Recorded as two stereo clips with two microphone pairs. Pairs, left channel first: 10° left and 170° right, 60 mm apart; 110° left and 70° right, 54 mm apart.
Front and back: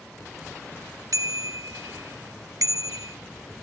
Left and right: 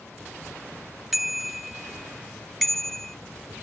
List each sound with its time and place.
1.1 s a bicycle bell: 155° right; by 3.2 s 165° right